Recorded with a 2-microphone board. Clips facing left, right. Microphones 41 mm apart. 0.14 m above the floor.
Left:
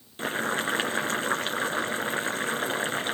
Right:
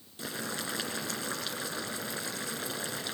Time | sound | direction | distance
0.2 | boiling | 45° left (ahead or behind) | 2 m